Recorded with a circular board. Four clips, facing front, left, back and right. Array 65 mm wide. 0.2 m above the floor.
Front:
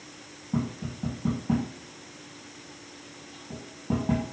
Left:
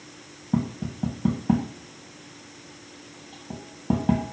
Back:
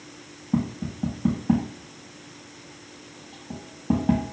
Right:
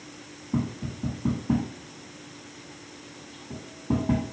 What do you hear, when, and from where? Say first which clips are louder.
0.5 s tapping: left 3 dB, back 4 dB; 110° left, 4 m